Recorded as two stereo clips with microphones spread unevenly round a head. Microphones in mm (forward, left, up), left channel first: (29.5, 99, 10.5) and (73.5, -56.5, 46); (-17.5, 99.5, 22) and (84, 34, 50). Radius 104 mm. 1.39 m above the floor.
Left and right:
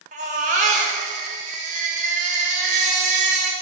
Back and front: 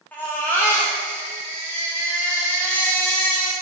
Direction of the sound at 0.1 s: 130° right.